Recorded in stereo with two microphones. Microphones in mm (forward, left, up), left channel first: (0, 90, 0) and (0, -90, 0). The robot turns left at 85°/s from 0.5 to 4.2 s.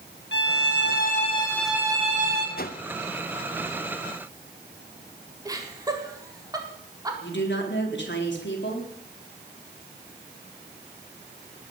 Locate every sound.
0.3 s a violin: 100° left, 3 m; by 2.5 s 65° right, 3 m
2.6 s a whoosh: 55° left (ahead or behind), 1.0 m
5.5 s laughter: 20° right (ahead or behind), 4.5 m
7.2 s a woman speaking: 90° left, 4 m